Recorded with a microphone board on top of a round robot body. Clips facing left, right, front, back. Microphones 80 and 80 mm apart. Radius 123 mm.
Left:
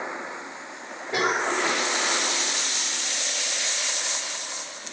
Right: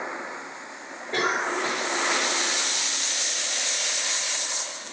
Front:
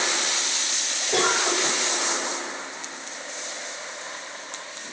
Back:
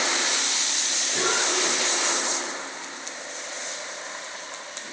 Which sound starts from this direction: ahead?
A cough, at 1.1 s.